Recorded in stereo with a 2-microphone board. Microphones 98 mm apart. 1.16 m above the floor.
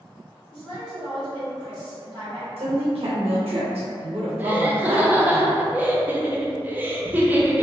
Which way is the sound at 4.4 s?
20° right (ahead or behind).